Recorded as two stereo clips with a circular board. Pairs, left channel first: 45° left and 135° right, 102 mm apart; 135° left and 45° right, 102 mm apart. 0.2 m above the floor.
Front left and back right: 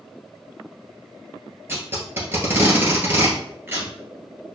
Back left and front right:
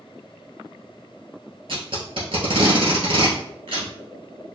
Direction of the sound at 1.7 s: 70° right.